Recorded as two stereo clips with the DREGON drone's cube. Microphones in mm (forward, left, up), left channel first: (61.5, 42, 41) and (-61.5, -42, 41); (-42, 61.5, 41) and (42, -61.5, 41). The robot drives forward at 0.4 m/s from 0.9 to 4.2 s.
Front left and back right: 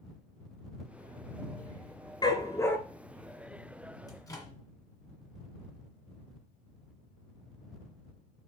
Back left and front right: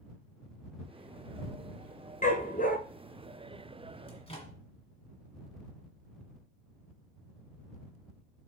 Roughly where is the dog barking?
Left.